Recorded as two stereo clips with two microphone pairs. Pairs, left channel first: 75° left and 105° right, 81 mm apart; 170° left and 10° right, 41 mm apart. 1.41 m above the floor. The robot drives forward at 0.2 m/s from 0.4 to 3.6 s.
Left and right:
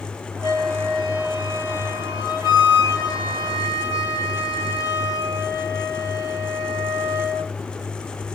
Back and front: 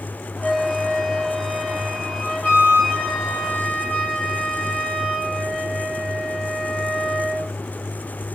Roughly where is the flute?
Behind right.